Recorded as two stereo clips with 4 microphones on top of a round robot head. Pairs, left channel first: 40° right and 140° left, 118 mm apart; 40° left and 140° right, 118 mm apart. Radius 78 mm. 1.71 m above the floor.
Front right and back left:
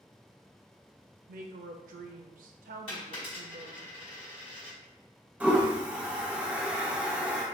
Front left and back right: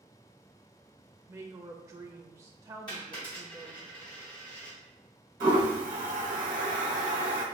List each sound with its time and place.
1.3 s a woman speaking: 150° left, 0.5 m
2.9 s a dropped coin: 5° right, 1.2 m
5.4 s a toilet flushing: 140° right, 1.0 m